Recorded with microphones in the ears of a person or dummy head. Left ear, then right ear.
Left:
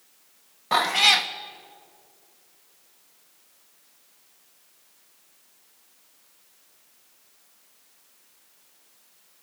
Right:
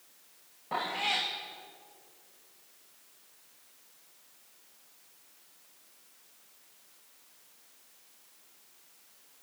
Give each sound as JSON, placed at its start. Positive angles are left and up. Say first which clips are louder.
{"t": 0.7, "sound": "a cat meowing", "louder": "left 12 dB", "side_deg": 60, "distance_m": 1.1}